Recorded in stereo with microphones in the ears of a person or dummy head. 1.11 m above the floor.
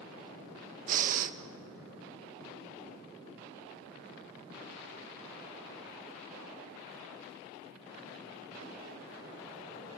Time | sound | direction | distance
0.9 | breathing | 50° right (ahead or behind) | 1.1 m